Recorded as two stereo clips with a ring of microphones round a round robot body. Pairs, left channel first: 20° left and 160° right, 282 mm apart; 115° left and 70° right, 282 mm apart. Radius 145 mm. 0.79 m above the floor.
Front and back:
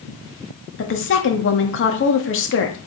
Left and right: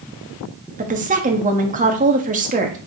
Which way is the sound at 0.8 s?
10° right.